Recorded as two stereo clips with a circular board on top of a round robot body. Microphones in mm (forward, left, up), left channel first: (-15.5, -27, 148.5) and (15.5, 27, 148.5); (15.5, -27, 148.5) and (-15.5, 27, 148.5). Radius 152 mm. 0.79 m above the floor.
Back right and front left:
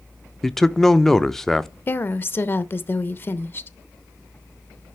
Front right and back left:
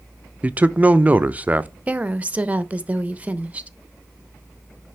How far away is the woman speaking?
About 0.8 m.